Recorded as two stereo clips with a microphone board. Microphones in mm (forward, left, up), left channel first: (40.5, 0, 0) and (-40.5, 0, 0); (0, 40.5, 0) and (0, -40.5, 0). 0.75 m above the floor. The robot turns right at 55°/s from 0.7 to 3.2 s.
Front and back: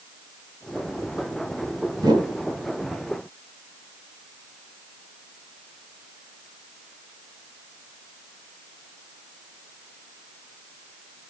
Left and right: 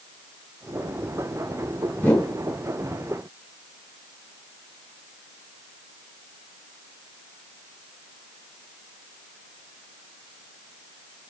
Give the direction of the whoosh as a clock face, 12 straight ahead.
7 o'clock.